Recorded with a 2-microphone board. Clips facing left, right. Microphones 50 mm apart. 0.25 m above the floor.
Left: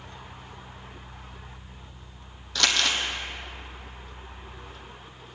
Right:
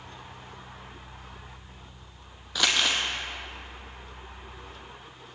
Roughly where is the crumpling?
Centre.